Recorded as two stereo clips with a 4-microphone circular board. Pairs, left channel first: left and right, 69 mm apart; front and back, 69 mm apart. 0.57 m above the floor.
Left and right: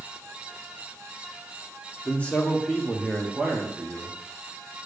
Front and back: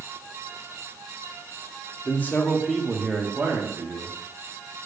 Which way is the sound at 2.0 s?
40° left.